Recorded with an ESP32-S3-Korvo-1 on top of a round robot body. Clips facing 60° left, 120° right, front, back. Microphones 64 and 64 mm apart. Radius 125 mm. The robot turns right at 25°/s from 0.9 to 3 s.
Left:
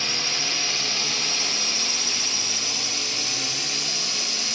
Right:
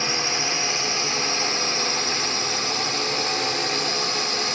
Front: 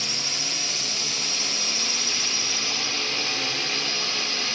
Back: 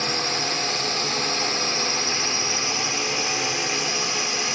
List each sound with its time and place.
0.0 s a drone: 170° right; by 4.5 s 115° right